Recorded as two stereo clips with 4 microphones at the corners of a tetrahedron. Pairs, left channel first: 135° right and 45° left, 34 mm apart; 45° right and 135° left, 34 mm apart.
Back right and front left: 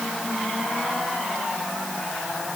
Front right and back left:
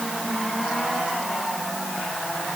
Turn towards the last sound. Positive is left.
No sound to turn to.